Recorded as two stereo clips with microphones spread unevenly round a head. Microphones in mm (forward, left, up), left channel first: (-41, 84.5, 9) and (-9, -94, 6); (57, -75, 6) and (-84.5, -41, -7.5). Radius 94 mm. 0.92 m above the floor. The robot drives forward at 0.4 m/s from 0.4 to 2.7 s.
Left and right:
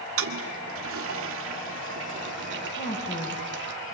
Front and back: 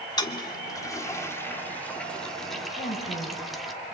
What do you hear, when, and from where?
0.2 s a toilet flushing: 75° right, 2.0 m; by 3.7 s 105° right, 2.0 m
2.8 s a woman speaking: 45° left, 5 m